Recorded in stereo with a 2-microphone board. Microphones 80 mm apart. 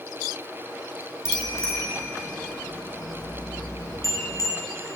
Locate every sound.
1.2 s a bicycle bell: 35° left (ahead or behind), 4.5 m; by 4.5 s 40° left (ahead or behind), 2.5 m